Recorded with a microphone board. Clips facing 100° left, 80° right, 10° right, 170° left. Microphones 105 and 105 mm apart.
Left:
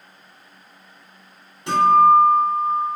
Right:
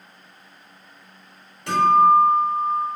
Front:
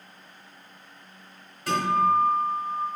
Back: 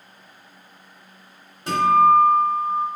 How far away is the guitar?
About 1.8 m.